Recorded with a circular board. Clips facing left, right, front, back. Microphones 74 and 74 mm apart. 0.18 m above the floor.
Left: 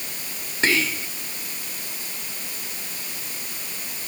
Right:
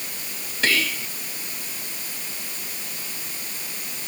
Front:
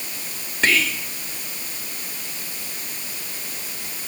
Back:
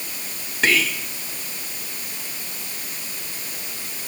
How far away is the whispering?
About 1.1 m.